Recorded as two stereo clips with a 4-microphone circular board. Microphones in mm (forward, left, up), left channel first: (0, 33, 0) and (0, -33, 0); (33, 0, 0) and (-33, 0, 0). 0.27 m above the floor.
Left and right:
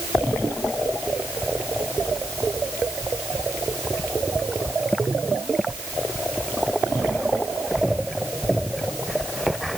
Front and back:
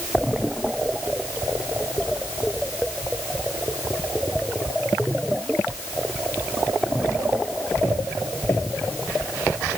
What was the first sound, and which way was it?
Only background noise.